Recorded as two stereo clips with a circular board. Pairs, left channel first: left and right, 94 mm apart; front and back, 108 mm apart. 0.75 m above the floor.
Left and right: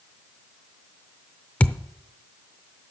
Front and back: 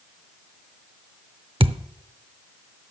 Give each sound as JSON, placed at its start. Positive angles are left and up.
{"t": 1.6, "sound": "a thud", "azimuth_deg": 160, "distance_m": 0.6}